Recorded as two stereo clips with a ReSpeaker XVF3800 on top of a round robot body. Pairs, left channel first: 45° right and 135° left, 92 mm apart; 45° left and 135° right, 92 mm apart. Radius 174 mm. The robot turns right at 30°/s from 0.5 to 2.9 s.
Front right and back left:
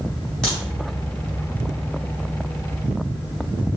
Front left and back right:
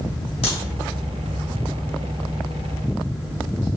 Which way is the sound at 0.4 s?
40° left.